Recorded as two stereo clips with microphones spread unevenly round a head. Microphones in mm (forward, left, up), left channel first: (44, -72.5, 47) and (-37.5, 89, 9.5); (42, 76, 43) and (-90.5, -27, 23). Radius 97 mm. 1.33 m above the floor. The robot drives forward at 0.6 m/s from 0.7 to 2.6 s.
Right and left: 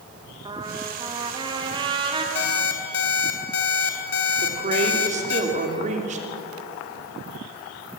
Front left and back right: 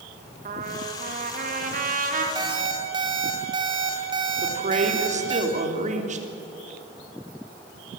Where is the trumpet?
Straight behind, 2 m.